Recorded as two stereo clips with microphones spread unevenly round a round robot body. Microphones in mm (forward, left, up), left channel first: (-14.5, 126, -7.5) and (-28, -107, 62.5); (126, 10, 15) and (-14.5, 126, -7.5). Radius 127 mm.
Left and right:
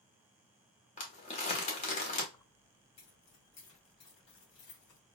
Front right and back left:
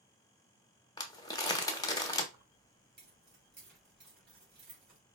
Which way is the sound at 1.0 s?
15° left.